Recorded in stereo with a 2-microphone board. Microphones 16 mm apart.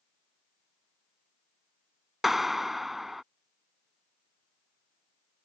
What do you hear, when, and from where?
2.2 s a clap: 10° right (ahead or behind)